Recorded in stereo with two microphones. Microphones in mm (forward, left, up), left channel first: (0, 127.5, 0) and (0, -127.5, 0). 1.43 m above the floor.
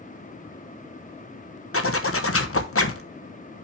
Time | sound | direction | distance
1.7 | a zipper | 60° left (ahead or behind) | 0.9 m